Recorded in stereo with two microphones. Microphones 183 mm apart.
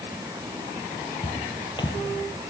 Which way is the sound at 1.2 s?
25° left (ahead or behind).